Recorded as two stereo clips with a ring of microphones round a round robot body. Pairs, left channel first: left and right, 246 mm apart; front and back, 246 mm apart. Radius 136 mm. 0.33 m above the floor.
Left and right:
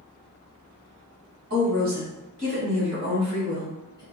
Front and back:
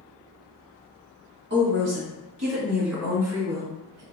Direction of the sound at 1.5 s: 135° right.